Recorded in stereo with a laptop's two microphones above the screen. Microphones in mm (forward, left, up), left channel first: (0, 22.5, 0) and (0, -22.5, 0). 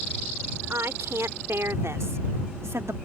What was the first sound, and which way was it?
A woman speaking, 80° right.